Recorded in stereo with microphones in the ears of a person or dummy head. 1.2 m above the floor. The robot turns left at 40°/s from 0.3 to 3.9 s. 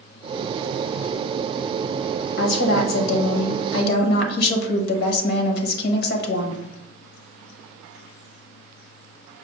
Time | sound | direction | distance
2.4 | a woman speaking | 125° left | 0.9 m